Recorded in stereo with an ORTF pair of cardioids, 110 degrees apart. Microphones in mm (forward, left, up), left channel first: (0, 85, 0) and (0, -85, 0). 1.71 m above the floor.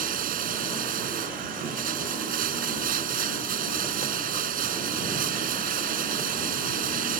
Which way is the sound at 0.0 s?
60° right.